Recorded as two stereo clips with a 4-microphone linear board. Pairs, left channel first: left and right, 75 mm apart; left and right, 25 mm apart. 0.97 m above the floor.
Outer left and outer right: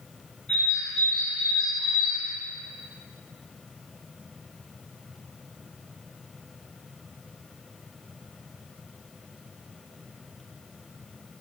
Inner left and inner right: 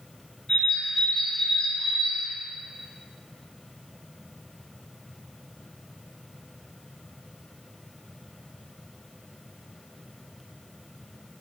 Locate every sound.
0.5 s a bird: 10° left (ahead or behind), 2 m